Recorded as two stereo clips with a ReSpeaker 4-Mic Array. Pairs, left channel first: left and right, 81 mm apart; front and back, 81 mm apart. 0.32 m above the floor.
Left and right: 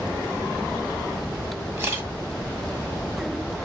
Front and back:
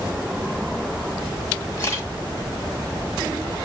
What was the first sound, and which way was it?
A camera shutter, 40° right.